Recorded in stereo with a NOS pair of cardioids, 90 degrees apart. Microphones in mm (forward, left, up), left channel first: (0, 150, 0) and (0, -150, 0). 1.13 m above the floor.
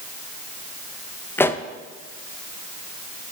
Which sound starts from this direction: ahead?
A pop, at 1.4 s.